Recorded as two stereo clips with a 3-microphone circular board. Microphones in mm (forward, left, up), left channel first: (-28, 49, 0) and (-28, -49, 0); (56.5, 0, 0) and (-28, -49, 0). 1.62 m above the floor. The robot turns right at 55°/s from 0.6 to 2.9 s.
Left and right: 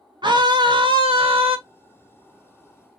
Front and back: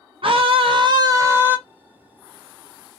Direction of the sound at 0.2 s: 130° right.